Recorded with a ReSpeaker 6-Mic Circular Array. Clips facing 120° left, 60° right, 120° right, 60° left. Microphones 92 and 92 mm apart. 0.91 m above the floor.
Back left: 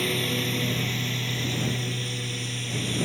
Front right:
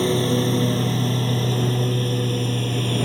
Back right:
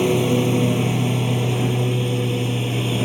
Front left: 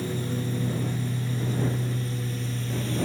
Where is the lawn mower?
120° right; by 3.1 s 100° right.